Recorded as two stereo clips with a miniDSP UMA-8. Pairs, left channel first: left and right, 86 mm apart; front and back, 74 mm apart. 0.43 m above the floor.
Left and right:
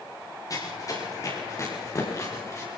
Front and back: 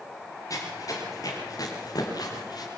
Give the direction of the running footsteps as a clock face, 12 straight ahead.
11 o'clock.